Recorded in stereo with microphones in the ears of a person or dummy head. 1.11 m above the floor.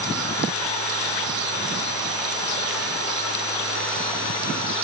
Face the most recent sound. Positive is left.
No sound to turn to.